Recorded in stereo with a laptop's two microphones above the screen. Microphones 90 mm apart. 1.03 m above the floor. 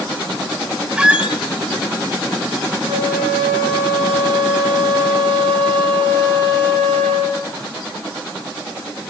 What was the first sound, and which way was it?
A squeak, 10° right (ahead or behind).